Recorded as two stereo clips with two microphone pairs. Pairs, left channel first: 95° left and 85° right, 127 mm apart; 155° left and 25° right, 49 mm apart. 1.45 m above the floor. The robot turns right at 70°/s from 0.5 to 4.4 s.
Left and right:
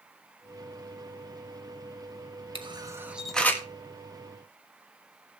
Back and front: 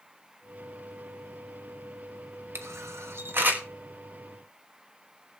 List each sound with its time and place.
2.5 s a camera shutter: 45° right, 1.3 m; by 3.6 s 35° left, 1.3 m